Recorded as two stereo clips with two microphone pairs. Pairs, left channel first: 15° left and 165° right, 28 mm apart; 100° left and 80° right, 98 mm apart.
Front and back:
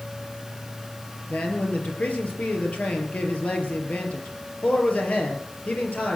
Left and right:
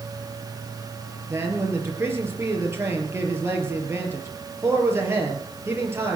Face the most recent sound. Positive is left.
turn(degrees=-15)